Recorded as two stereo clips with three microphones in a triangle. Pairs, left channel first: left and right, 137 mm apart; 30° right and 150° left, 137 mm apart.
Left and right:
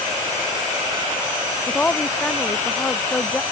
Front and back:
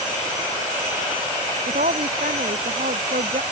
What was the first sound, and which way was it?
A woman speaking, 170° left.